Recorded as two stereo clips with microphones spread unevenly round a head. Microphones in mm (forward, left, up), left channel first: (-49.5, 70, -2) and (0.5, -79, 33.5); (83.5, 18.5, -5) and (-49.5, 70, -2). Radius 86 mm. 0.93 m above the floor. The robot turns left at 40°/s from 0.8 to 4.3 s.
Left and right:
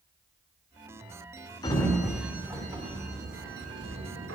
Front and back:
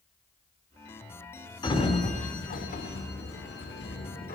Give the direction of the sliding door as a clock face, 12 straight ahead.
11 o'clock.